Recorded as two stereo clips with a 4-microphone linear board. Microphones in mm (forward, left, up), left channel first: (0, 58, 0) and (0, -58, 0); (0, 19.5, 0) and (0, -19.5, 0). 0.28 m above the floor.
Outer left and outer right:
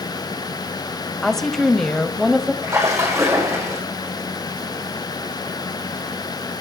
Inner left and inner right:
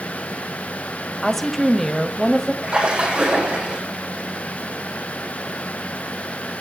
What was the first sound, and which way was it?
A woman speaking, 5° left (ahead or behind).